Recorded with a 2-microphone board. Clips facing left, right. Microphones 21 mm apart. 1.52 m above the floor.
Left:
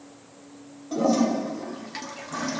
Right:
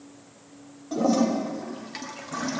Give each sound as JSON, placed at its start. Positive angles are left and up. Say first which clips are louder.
{"t": 0.9, "sound": "a toilet flushing", "louder": "even", "side_deg": 0, "distance_m": 2.0}